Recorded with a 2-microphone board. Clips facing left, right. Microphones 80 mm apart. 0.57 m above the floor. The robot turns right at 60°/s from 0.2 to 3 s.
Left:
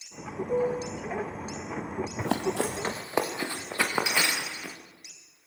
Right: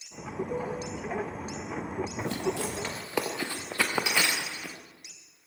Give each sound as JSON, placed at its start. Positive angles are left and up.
{"t": 0.5, "sound": "a piano", "azimuth_deg": 20, "distance_m": 1.2}
{"t": 2.2, "sound": "running footsteps", "side_deg": 80, "distance_m": 3.0}